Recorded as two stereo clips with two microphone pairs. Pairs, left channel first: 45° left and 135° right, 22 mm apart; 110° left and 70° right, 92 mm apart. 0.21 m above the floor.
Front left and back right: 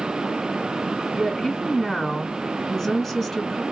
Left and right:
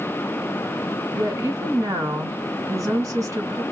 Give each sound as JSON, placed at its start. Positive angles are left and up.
{"t": 1.1, "sound": "a woman speaking", "azimuth_deg": -40, "distance_m": 1.9}